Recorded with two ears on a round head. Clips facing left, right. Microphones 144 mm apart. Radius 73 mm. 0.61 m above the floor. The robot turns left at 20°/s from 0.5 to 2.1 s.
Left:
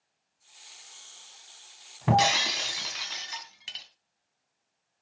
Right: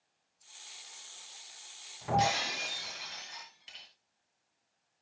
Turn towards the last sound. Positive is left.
turn(degrees=85)